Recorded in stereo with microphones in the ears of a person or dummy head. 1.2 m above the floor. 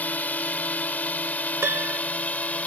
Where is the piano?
5° right (ahead or behind).